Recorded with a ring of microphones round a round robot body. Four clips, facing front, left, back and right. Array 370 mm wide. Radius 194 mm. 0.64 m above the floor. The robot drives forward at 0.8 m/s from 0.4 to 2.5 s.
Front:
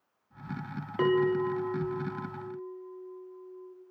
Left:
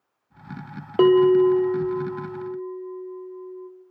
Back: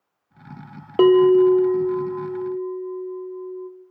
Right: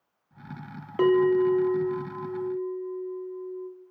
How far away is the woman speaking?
I don't hear a woman speaking.